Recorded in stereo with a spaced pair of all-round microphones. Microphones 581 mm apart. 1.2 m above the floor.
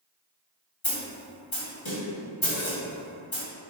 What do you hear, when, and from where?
0.8 s a snare drum: 50° left (ahead or behind), 1.3 m